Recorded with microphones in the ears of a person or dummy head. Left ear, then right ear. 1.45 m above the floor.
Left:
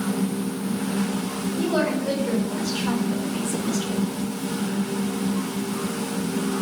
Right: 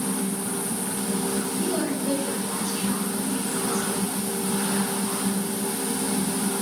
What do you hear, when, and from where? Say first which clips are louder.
1.6 s a woman speaking: left 4 dB; 30° left (ahead or behind), 5.5 m; by 4.0 s 35° left (ahead or behind), 3.5 m